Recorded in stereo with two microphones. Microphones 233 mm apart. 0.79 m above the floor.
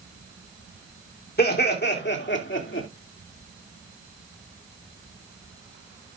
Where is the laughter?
45° left (ahead or behind), 2.5 m; by 2.9 s 60° left (ahead or behind), 2.5 m.